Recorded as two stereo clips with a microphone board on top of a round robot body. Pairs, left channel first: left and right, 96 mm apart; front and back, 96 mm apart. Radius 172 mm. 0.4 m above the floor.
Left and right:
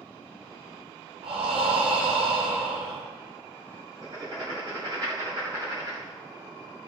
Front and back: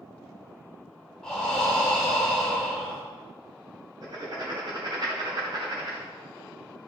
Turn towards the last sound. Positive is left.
turn(degrees=-140)